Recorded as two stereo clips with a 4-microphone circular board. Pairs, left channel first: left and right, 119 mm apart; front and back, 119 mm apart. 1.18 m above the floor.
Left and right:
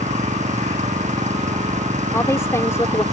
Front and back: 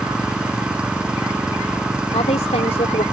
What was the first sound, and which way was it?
An engine running, 100° right.